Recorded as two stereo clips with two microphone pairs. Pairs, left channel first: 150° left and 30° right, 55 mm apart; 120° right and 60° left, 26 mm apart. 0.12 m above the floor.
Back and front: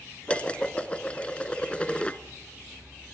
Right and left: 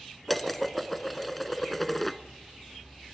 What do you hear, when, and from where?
0.3 s dishes clattering: 165° left, 0.8 m